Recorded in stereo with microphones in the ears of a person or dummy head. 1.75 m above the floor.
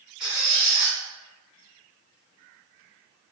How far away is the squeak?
About 1.7 m.